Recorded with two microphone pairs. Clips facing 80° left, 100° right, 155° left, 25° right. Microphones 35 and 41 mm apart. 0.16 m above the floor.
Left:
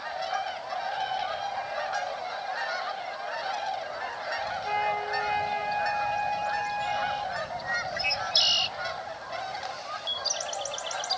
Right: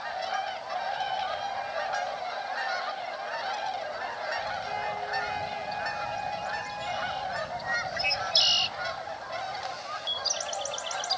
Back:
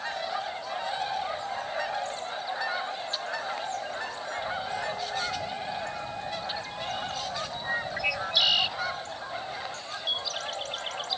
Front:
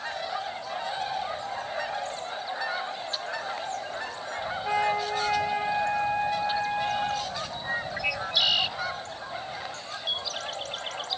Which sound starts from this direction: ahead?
A flute, at 4.6 s.